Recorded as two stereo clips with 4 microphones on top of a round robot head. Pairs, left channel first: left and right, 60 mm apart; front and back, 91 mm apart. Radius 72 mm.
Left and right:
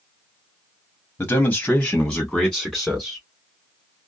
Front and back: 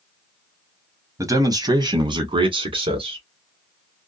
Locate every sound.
1.2 s a man speaking: 145° left, 1.0 m; by 3.2 s 170° right, 1.8 m